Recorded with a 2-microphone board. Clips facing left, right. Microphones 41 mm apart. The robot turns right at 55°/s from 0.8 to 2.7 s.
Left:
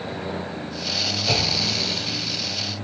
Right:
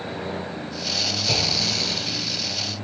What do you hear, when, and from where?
1.3 s a clunk: 140° left, 1.6 m; by 1.9 s 175° left, 1.6 m